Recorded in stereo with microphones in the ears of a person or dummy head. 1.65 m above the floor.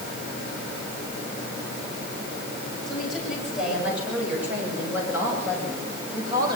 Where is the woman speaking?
5° left (ahead or behind), 8.5 m; by 6.6 s 20° right (ahead or behind), 7.5 m.